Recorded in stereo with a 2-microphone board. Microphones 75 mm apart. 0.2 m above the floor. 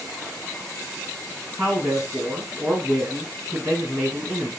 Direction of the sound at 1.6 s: 15° right (ahead or behind).